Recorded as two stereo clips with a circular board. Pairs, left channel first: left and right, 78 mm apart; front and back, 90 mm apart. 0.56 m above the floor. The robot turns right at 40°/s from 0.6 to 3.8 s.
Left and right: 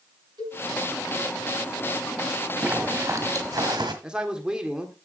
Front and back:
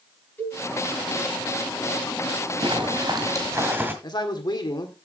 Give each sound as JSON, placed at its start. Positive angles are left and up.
{"t": 0.4, "sound": "a cowbell", "azimuth_deg": -70, "distance_m": 6.0}
{"t": 2.6, "sound": "a zipper", "azimuth_deg": -160, "distance_m": 1.8}
{"t": 4.0, "sound": "a man speaking", "azimuth_deg": -15, "distance_m": 1.6}